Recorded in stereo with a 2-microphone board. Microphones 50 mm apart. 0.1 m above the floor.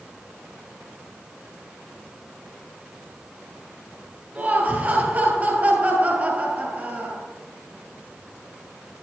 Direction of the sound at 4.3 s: 30° right (ahead or behind).